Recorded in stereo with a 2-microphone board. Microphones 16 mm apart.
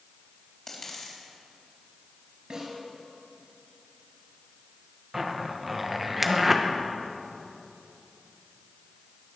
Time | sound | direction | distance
0.7 | a dropped coin | 30° left (ahead or behind) | 3.5 m
2.5 | a snare drum | 45° right (ahead or behind) | 5 m
5.1 | a zipper | 10° right (ahead or behind) | 1.0 m